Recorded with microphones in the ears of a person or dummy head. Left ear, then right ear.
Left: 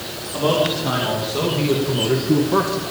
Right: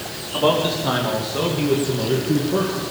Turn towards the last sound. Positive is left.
turn(degrees=55)  # may be behind; listen again after turning